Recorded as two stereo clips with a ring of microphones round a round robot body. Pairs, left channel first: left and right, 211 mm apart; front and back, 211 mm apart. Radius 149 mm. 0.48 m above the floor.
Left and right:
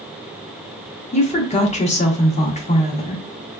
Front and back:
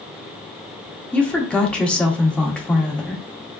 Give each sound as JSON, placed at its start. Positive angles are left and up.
{"t": 1.1, "sound": "a woman speaking", "azimuth_deg": 80, "distance_m": 0.8}